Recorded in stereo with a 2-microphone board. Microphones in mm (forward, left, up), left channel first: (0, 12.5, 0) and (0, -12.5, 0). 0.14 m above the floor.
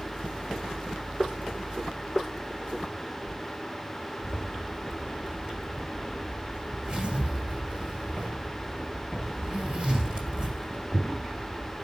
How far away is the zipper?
About 2 m.